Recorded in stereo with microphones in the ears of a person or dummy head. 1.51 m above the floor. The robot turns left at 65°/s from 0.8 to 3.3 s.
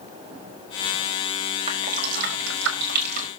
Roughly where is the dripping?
Right.